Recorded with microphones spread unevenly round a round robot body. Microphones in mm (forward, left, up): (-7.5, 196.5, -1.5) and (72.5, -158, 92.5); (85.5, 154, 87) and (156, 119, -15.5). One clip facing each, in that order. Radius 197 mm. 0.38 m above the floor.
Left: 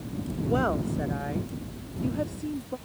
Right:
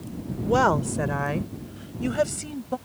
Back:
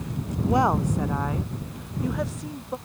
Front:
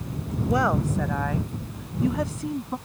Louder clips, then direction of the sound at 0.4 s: Right 4 dB, back 1 dB; 95° right.